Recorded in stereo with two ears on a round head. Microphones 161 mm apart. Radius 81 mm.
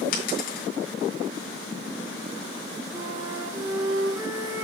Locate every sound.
0.1 s a dropped coin: 50° left (ahead or behind), 2.5 m
2.9 s a flute: 10° right (ahead or behind), 2 m